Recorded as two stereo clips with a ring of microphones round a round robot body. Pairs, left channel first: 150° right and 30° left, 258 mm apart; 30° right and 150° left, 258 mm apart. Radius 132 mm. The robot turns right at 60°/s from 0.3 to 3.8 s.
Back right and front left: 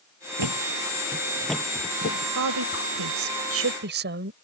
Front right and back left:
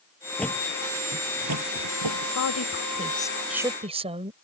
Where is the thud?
55° left; by 2.2 s 165° left.